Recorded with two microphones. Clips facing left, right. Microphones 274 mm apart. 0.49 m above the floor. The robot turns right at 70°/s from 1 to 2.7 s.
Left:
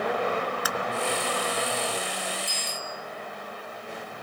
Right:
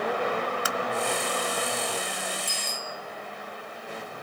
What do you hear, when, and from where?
0.7 s tapping: 25° right (ahead or behind), 0.5 m
2.5 s a bicycle bell: 85° right, 6 m; by 2.9 s 70° right (ahead or behind), 6 m